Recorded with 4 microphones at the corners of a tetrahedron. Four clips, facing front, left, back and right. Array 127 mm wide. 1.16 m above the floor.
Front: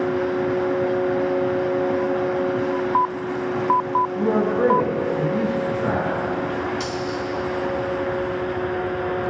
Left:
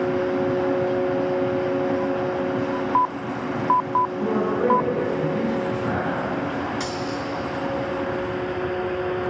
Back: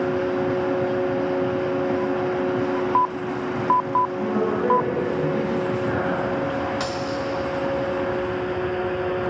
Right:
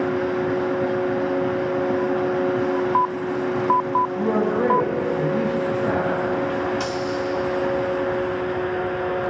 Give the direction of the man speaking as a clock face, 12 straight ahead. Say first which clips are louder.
Right 2 dB, front 3 dB; 12 o'clock.